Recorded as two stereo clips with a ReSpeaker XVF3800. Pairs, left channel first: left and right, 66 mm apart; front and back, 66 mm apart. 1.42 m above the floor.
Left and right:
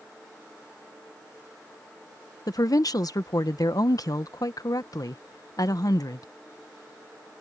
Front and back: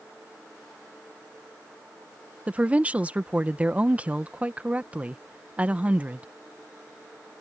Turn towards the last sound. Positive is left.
turn(degrees=110)